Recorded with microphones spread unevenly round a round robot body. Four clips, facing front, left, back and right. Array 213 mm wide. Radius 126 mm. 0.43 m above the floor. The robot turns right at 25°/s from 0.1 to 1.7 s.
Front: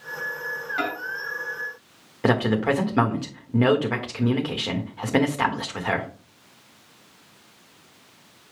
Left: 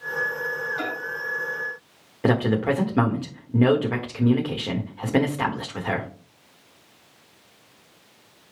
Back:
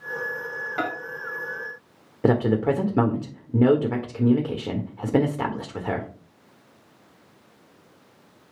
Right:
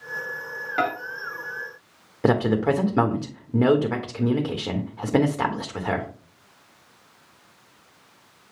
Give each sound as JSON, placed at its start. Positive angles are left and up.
{"t": 0.8, "sound": "a microwave", "azimuth_deg": -100, "distance_m": 1.6}
{"t": 2.2, "sound": "a man speaking", "azimuth_deg": -155, "distance_m": 1.3}